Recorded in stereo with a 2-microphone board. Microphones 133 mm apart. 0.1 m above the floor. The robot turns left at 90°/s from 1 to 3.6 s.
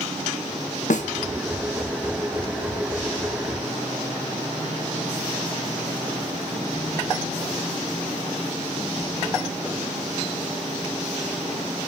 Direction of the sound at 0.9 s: 70° left (ahead or behind).